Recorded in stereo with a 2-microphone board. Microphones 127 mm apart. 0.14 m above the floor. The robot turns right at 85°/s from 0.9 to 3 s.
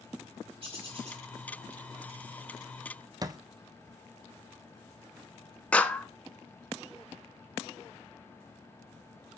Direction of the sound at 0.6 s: 45° right (ahead or behind).